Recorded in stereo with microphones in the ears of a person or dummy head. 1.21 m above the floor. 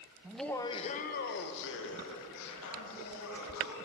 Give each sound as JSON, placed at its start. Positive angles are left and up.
{"t": 0.2, "sound": "laughter", "side_deg": -5, "distance_m": 0.6}